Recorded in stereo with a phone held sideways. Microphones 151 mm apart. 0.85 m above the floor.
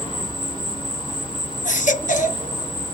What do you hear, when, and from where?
0.0 s an insect: 35° left (ahead or behind), 1.0 m
1.6 s a baby crying: 60° left (ahead or behind), 0.8 m